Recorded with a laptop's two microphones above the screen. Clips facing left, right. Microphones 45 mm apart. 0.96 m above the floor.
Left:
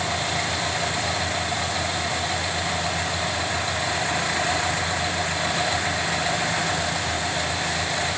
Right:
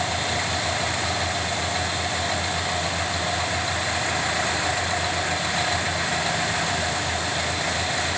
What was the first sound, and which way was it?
Only background noise.